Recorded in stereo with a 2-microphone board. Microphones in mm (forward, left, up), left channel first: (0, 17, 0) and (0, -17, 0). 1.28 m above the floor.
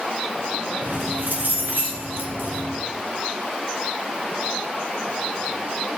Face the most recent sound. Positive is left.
turn(degrees=-75)  # may be behind; listen again after turning